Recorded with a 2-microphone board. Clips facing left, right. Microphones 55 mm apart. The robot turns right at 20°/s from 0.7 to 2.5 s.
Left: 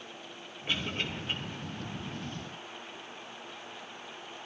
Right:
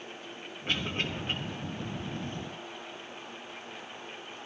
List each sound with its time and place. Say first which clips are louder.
0.7 s a cough: right 1 dB; 50° right (ahead or behind), 4.5 m; by 1.3 s 40° right (ahead or behind), 4.5 m